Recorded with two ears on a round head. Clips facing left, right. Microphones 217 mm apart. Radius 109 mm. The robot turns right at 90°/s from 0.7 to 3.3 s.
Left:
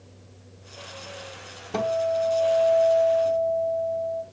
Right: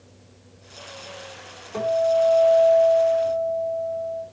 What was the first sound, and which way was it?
A guitar, 85° left.